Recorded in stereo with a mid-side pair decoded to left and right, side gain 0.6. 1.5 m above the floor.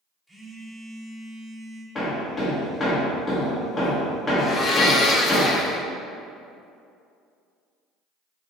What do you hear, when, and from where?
0.3 s a phone buzzing: 5° right, 1.2 m
1.9 s hammering: 30° left, 1.8 m
4.4 s a blender: 40° left, 0.7 m